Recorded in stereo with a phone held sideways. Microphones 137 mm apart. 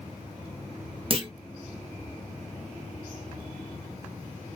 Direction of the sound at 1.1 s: 45° right (ahead or behind).